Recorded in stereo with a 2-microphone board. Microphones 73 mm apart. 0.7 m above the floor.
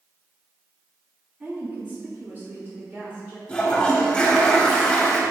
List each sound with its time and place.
1.4 s a woman speaking: 20° right (ahead or behind), 1.3 m; by 3.4 s 35° right (ahead or behind), 2.5 m
3.5 s a toilet flushing: 15° left (ahead or behind), 1.3 m